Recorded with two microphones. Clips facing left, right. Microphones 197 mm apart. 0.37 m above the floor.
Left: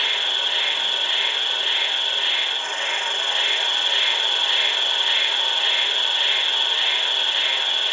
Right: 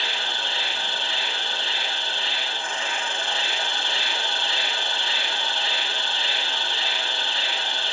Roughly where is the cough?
No cough in this recording.